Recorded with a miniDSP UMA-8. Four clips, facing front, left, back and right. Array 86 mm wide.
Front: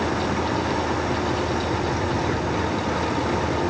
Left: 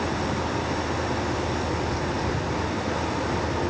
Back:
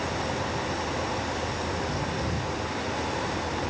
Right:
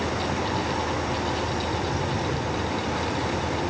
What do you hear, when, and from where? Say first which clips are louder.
0.0 s an engine running: even, front 6 dB; 15° left